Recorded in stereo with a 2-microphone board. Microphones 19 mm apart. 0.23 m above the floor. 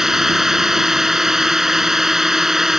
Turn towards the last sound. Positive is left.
turn(degrees=-25)  # may be behind; listen again after turning